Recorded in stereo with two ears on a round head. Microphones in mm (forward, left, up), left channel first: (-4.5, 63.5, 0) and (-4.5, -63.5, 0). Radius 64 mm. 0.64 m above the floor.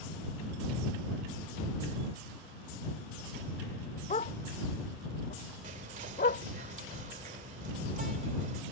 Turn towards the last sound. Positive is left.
turn(degrees=-55)  # may be behind; listen again after turning